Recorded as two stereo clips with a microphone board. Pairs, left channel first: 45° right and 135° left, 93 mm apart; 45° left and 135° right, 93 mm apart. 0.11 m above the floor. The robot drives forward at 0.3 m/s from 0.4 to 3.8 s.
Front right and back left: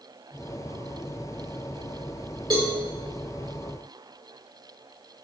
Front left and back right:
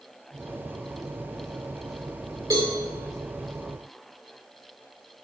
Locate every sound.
2.5 s a cowbell: straight behind, 6 m